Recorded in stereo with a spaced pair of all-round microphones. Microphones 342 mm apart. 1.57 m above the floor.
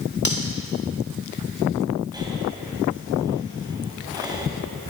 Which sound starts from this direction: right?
Cutlery clinking, at 0.2 s.